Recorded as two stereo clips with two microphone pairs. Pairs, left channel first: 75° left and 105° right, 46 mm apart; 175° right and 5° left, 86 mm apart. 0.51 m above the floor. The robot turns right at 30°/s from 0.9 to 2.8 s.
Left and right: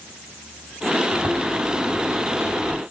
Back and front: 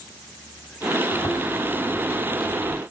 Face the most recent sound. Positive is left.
turn(degrees=-65)